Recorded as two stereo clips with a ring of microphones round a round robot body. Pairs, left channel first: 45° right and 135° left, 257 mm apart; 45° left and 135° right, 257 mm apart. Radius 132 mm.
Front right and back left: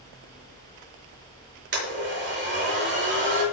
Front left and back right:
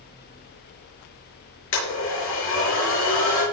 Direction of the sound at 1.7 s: 85° left.